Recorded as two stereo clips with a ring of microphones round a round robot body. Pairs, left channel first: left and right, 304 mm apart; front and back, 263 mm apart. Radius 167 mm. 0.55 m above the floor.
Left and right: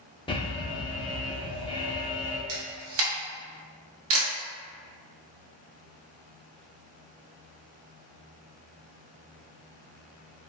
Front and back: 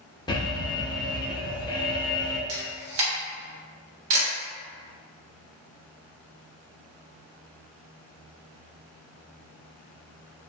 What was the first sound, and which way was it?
An alarm, 45° left.